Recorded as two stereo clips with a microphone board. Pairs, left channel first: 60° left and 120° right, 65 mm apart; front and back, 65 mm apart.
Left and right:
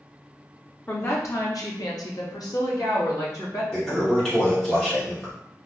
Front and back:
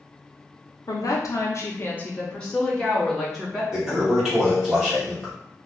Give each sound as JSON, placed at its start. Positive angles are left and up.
{"t": 0.9, "sound": "a woman speaking", "azimuth_deg": 10, "distance_m": 0.6}
{"t": 3.7, "sound": "a toilet flushing", "azimuth_deg": 120, "distance_m": 1.2}